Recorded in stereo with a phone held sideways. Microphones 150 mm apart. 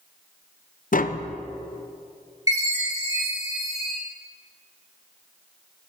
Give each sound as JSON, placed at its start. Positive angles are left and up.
{"t": 0.9, "sound": "tapping", "side_deg": 65, "distance_m": 0.5}
{"t": 2.5, "sound": "a chime", "side_deg": -20, "distance_m": 5.5}